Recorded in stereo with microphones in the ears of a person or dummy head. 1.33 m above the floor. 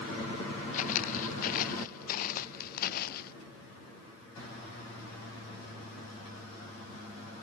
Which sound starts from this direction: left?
Footsteps, at 0.7 s.